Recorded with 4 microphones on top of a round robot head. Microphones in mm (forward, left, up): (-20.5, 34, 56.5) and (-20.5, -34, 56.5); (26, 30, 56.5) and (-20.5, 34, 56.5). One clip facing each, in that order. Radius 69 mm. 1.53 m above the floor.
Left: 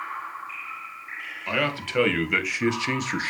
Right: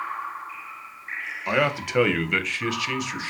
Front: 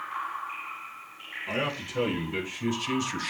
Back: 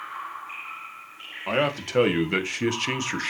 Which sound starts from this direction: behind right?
A man speaking, at 1.5 s.